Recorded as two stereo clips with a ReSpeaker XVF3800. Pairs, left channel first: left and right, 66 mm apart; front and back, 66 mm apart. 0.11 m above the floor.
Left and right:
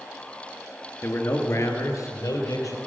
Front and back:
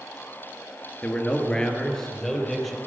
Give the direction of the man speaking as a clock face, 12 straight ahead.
10 o'clock.